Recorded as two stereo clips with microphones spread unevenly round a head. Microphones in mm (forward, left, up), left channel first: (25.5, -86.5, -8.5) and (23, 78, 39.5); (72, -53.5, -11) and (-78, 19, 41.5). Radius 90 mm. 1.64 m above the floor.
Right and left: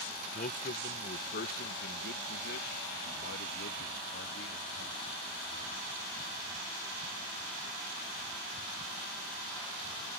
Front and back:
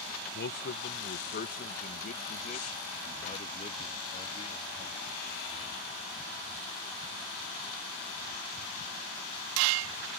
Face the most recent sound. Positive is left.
turn(degrees=-90)